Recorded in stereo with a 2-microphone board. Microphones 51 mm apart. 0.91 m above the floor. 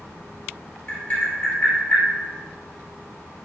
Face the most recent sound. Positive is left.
turn(degrees=30)  # may be behind; listen again after turning